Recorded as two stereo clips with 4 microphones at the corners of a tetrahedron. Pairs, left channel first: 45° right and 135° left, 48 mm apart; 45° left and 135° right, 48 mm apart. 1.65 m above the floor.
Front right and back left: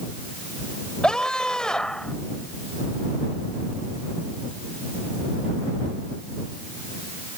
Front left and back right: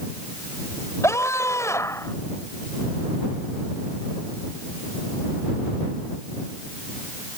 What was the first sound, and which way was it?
A scream, 30° left.